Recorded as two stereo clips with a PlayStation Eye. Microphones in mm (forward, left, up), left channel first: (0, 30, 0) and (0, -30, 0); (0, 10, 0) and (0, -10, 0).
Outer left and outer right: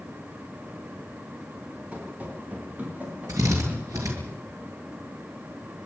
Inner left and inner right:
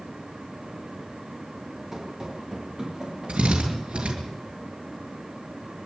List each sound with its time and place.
1.9 s running footsteps: 20° right (ahead or behind), 6.5 m; by 4.3 s 35° right (ahead or behind), 8 m
3.3 s a drill: 80° right, 6.5 m